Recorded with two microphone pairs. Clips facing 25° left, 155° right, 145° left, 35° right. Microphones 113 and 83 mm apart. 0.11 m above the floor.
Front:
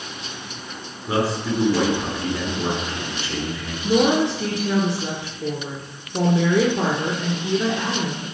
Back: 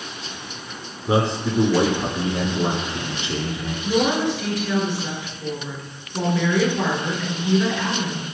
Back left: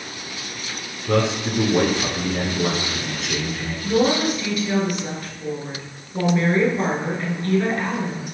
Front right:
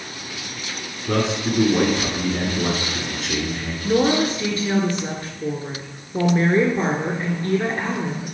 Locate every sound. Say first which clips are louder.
1.1 s a man speaking: back 1 dB, back left 1 dB; 125° right, 1.3 m
3.8 s a woman speaking: front 3 dB, front right 1 dB; 5° left, 1.4 m